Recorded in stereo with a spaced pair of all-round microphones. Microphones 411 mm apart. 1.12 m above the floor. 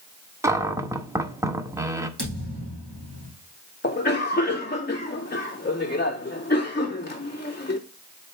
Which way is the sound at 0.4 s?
5° right (ahead or behind).